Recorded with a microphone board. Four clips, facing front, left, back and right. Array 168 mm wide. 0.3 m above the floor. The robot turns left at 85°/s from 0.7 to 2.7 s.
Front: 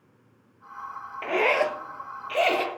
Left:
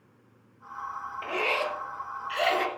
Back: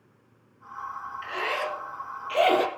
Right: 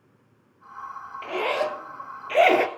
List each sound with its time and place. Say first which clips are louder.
1.2 s a zipper: right 4 dB, front 8 dB; 5° left, 1.3 m; by 2.7 s 120° right, 1.3 m